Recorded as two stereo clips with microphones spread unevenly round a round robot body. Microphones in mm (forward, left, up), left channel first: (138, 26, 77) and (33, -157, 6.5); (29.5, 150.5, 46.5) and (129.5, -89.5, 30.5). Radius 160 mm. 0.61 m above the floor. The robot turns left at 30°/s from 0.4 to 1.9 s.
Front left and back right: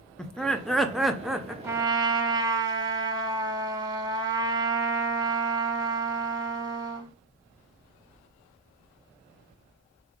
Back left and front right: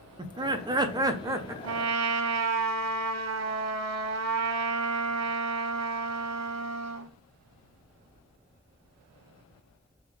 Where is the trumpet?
35° right, 1.3 m; by 7.1 s 45° right, 1.3 m.